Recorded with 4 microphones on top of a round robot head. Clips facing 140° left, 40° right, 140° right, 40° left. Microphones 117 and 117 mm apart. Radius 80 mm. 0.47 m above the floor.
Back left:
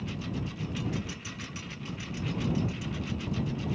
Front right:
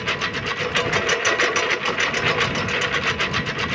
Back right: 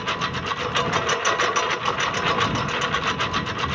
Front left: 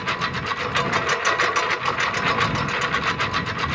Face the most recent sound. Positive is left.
turn(degrees=-55)